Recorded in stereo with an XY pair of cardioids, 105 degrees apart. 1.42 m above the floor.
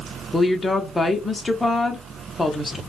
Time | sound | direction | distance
0.3 | a woman speaking | 15° left | 0.5 m